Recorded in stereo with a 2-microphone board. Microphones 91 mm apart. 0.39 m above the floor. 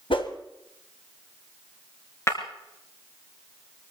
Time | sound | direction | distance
0.1 | a whoosh | 65° left (ahead or behind) | 1.7 m
2.3 | breaking glass | 30° left (ahead or behind) | 3.5 m